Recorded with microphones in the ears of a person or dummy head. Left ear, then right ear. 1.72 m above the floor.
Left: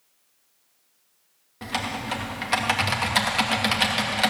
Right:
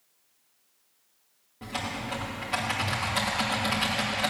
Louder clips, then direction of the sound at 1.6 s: Left 5 dB; 45° left (ahead or behind).